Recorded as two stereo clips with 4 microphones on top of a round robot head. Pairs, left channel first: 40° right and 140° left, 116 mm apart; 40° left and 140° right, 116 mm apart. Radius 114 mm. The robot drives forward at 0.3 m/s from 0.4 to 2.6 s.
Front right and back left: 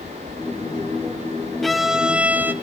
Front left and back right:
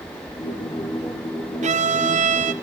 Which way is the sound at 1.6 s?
125° right.